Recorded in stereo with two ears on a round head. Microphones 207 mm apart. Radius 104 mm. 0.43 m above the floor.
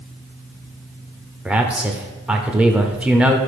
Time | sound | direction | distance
1.4 | a man speaking | 5° right (ahead or behind) | 0.9 m